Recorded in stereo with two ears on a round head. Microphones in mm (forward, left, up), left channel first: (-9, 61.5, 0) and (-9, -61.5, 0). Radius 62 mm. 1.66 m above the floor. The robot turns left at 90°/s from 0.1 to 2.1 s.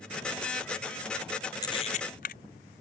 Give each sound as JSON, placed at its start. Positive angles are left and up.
{"t": 1.6, "sound": "a camera shutter", "side_deg": 30}